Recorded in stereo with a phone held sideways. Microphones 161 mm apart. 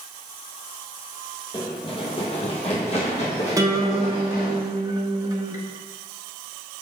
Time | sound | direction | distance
1.5 | running footsteps | 30° left (ahead or behind) | 1.7 m
3.6 | a guitar | 20° right (ahead or behind) | 1.0 m